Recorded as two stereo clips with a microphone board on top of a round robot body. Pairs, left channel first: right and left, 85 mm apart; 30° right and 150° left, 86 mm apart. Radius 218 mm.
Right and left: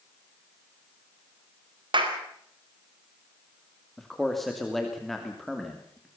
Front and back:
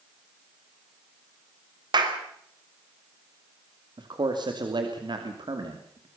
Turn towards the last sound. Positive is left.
turn(degrees=180)